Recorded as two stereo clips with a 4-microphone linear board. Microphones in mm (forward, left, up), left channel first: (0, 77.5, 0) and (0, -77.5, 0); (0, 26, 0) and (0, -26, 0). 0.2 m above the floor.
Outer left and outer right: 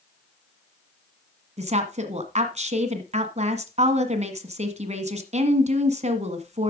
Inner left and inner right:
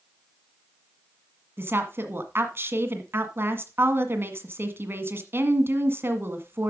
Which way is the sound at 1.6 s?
45° right (ahead or behind).